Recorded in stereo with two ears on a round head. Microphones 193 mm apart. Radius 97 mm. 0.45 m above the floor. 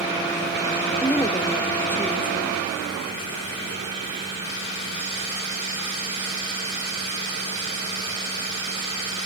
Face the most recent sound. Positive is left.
turn(degrees=10)  # may be behind; listen again after turning